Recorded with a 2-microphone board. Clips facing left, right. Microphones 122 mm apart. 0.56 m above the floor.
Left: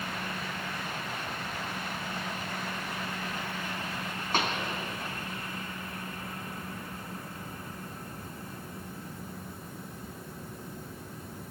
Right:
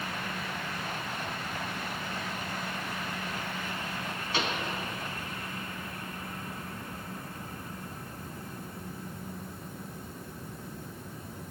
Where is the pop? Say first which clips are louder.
Left 2 dB; 50° left (ahead or behind), 2.5 m.